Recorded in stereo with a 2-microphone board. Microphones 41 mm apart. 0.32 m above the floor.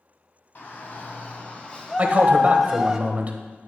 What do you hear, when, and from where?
0.6 s a shout: 50° left (ahead or behind), 2 m; by 3.0 s 10° right (ahead or behind), 1.7 m
2.0 s a man speaking: 35° right (ahead or behind), 1.2 m